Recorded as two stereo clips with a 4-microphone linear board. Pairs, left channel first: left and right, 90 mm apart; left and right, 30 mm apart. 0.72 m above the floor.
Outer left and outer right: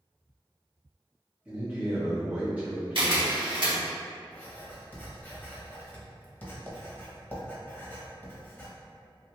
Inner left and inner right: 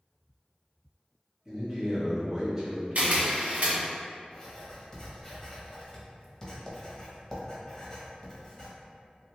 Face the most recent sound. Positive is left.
turn(degrees=20)  # may be behind; listen again after turning